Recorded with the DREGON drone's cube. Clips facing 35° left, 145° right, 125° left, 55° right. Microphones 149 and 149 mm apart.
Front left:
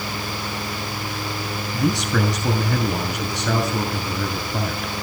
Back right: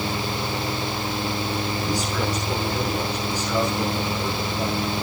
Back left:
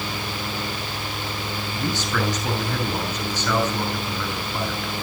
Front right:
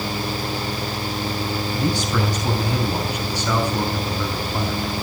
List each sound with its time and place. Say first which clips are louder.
1.7 s a man speaking: front left 4 dB, front right 2 dB; 20° left, 6 m